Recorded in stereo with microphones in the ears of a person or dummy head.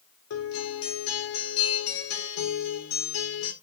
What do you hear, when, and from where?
0.3 s a guitar: 75° left (ahead or behind), 3.5 m